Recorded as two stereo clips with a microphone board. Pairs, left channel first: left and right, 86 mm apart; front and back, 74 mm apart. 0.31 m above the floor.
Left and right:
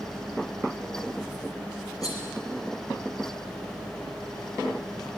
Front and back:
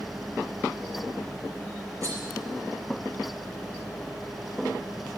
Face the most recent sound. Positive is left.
turn(degrees=135)